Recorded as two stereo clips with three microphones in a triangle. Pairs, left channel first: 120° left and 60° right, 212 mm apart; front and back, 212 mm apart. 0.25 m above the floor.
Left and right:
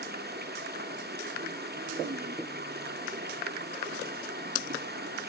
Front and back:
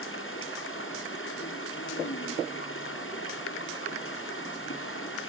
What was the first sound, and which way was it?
Running water, 20° right.